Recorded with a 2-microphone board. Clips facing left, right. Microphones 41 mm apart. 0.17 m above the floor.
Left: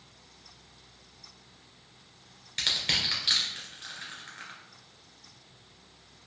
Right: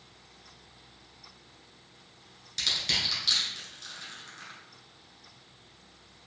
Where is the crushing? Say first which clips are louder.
Left 1 dB; 30° left (ahead or behind), 1.4 m.